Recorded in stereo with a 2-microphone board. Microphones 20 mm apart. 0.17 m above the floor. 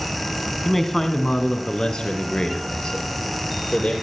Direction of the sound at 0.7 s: 5° left (ahead or behind).